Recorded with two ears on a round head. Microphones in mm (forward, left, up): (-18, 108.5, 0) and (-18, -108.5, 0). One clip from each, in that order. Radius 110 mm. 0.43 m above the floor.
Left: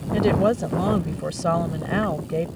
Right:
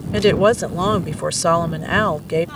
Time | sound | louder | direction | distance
0.1 | a woman speaking | right 6 dB | 50° right (ahead or behind) | ?